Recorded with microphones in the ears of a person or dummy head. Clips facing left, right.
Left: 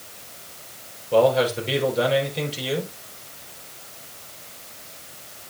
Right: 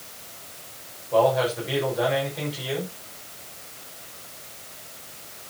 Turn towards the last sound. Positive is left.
turn(degrees=40)  # may be behind; listen again after turning